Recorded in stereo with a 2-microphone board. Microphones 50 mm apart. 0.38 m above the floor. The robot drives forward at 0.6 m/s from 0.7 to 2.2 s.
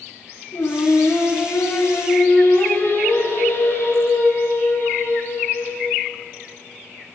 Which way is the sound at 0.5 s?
80° left.